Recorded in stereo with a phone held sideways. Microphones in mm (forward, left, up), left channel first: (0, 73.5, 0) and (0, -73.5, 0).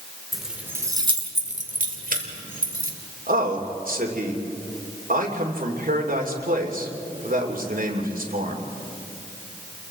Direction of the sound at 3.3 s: 75° right (ahead or behind).